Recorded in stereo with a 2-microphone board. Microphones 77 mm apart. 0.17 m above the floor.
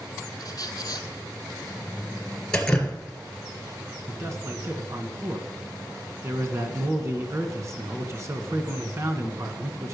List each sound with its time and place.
0.4 s a squeak: 55° left (ahead or behind), 0.9 m
2.5 s dripping: 10° left (ahead or behind), 1.7 m
4.1 s a man speaking: 40° right (ahead or behind), 1.5 m